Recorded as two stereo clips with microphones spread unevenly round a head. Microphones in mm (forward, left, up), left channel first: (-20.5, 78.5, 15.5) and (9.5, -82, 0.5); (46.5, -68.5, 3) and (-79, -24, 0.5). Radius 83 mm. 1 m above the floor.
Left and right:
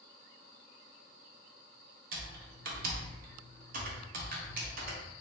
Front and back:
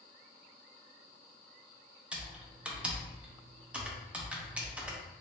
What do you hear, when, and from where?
2.1 s typing on a keyboard: 120° right, 0.7 m